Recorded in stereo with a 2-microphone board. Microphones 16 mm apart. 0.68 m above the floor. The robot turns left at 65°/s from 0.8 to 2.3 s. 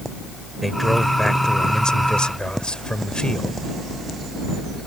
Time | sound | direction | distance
0.6 | a man speaking | 175° left | ?